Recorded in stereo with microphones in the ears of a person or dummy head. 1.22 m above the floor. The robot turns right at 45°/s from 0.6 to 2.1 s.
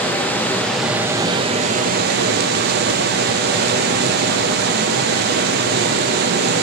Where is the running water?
175° left, 0.7 m; by 6.6 s 120° right, 0.7 m.